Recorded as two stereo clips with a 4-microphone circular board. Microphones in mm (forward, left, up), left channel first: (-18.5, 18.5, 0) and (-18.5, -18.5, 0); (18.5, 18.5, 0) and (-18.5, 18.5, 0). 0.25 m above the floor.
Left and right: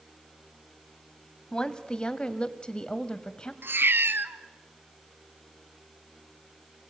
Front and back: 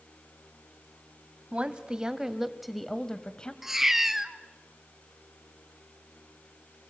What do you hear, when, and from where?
1.5 s a woman speaking: 145° left, 1.4 m; by 3.5 s 45° left, 1.3 m
3.6 s a cat meowing: 100° right, 1.0 m